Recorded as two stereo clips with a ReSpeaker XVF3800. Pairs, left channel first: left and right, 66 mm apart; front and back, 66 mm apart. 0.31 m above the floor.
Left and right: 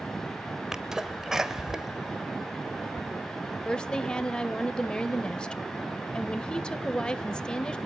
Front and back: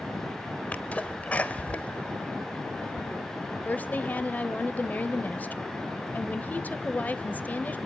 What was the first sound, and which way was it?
A sneeze, 20° right.